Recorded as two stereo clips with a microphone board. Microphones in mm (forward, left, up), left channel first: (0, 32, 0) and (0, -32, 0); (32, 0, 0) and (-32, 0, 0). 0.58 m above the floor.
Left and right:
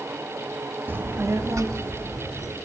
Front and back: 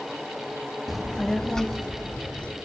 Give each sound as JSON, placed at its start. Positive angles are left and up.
{"t": 0.9, "sound": "a child speaking", "azimuth_deg": -90, "distance_m": 0.6}